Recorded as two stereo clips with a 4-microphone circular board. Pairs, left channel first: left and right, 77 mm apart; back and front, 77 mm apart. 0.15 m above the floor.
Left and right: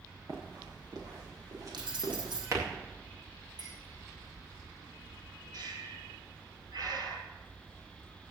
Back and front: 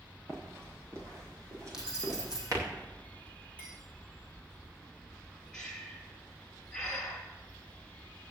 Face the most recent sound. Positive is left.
turn(degrees=-100)